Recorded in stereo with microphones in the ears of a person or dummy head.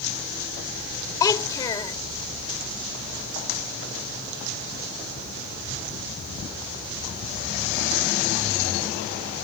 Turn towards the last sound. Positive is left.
turn(degrees=25)  # may be behind; listen again after turning